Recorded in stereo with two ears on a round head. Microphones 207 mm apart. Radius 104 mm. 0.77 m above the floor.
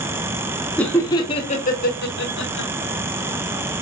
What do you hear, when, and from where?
0.8 s laughter: 5° left (ahead or behind), 1.1 m; by 2.7 s 60° left (ahead or behind), 1.3 m